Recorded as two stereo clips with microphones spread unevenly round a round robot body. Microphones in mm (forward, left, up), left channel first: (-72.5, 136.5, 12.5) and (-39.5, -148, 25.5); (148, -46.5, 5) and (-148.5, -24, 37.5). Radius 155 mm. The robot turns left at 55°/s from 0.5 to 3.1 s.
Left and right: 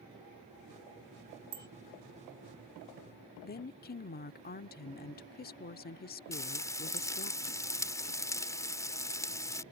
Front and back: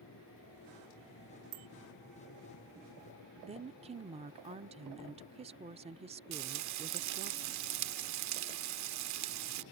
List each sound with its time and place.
1.5 s a bicycle bell: 155° right; by 1.7 s 165° right
3.4 s a woman speaking: 110° left
6.3 s frying: 170° left